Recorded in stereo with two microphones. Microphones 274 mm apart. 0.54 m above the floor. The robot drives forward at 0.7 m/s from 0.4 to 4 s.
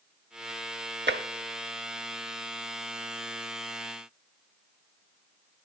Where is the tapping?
40° right (ahead or behind), 0.7 m; by 1.2 s 35° right (ahead or behind), 0.8 m.